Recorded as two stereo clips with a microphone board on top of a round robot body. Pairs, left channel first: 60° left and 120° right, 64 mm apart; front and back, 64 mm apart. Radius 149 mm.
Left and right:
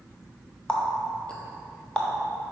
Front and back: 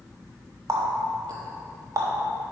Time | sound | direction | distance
0.7 | a running tap | 135° left | 0.5 m